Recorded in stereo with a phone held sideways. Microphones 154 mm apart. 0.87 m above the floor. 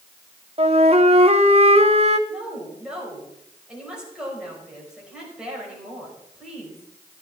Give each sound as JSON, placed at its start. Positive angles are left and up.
{"t": 0.6, "sound": "a flute", "side_deg": -40, "distance_m": 0.8}
{"t": 2.3, "sound": "a woman speaking", "side_deg": -5, "distance_m": 5.0}